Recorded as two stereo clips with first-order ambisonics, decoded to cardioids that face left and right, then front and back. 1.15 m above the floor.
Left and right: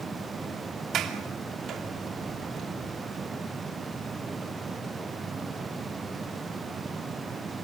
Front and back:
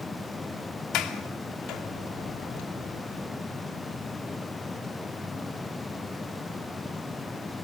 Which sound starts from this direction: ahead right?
A sliding door, at 0.9 s.